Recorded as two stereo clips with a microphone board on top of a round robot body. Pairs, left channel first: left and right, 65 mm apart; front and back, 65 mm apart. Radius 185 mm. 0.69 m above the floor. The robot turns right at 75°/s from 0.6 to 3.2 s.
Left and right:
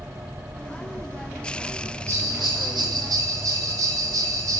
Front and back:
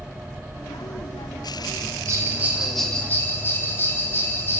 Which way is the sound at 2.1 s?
140° right.